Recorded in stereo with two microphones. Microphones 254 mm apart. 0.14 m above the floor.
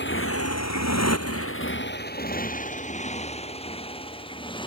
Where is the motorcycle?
45° left (ahead or behind); by 4.7 s 20° left (ahead or behind).